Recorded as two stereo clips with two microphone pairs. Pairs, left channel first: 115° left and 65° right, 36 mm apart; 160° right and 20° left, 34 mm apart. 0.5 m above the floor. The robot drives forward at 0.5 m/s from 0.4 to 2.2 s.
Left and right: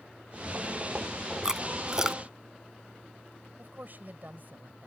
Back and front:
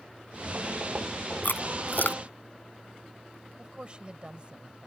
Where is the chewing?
140° right; by 2.2 s 145° right.